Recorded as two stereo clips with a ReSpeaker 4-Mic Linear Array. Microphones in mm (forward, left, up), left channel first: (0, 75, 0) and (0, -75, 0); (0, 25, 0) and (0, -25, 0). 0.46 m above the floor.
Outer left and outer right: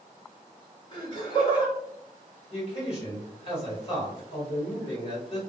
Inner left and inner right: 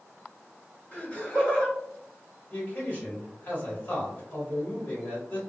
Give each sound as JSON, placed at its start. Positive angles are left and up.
{"t": 0.9, "sound": "laughter", "side_deg": 30, "distance_m": 1.5}
{"t": 2.5, "sound": "a man speaking", "side_deg": 45, "distance_m": 1.9}